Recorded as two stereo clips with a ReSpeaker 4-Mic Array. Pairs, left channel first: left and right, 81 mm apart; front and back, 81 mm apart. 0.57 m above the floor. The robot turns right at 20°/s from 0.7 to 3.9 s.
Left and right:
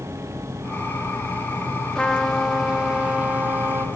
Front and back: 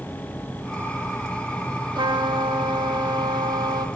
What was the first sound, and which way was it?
A trumpet, 170° left.